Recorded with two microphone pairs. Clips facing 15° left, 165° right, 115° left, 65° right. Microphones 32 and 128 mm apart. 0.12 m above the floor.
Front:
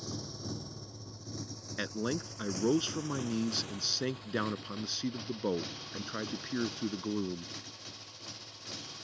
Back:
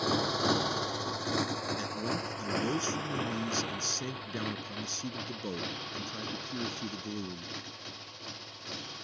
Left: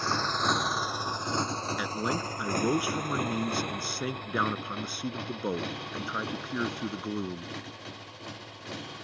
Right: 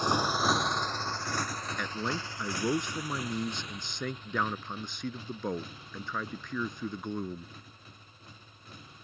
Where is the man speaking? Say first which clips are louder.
Back 1 dB, left 2 dB; 35° left.